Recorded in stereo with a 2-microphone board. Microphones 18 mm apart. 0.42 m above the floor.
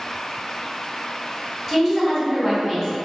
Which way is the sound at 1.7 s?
5° left (ahead or behind).